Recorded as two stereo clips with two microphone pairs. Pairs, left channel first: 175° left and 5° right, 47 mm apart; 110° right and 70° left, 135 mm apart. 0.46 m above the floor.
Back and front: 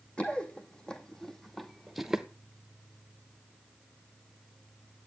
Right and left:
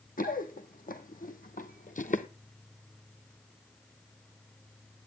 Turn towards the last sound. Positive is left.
turn(degrees=-85)